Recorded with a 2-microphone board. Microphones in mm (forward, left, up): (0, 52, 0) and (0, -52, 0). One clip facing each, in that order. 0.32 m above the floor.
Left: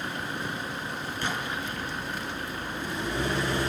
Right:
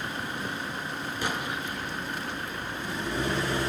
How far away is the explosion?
About 4.5 m.